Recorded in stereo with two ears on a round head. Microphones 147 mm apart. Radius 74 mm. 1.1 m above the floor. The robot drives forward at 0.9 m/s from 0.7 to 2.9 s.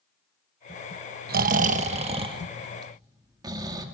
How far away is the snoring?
About 1.0 m.